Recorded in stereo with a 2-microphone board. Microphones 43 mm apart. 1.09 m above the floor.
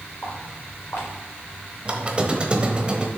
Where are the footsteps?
55° left (ahead or behind), 5 m.